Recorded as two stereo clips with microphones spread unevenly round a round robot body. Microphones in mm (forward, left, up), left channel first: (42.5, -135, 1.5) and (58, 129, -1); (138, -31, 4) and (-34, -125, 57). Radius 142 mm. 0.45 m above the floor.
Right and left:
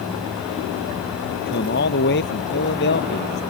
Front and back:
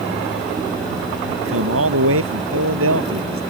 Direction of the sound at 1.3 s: 150° right.